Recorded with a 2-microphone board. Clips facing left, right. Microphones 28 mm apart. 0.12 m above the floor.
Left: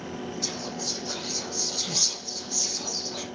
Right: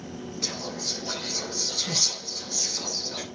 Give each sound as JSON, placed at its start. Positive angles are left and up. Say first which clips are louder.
{"t": 0.4, "sound": "whispering", "louder": "right 3 dB", "side_deg": -25, "distance_m": 1.8}